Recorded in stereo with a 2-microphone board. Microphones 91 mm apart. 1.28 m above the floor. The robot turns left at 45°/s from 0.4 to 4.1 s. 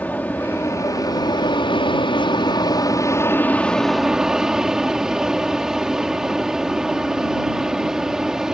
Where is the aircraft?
160° left; by 8.6 s 5° right.